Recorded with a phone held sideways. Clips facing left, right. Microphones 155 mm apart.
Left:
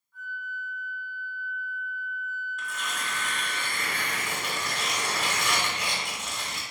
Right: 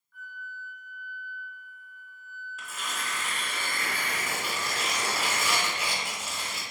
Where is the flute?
20° left (ahead or behind), 1.5 m.